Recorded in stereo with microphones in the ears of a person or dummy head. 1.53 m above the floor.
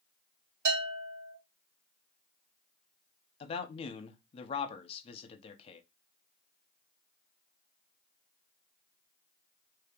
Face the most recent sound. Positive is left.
turn(degrees=35)  # may be behind; listen again after turning